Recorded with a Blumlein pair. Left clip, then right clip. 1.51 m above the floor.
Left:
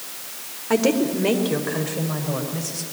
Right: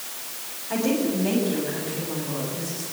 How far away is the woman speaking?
About 4 m.